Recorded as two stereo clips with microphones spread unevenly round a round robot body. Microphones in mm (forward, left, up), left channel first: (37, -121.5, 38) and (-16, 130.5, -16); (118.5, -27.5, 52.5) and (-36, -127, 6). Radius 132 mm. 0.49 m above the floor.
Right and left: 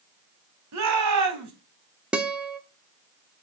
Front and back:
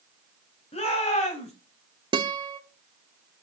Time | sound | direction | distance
0.7 | a shout | 105° left | 3.5 m
2.1 | a guitar | 175° left | 1.0 m